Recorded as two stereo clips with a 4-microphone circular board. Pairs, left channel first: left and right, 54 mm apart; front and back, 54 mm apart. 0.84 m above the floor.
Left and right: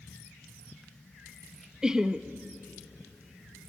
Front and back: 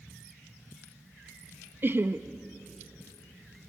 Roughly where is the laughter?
Behind.